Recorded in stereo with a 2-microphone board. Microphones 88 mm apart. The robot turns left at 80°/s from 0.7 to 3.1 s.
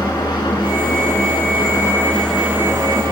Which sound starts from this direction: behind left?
An engine running, at 0.0 s.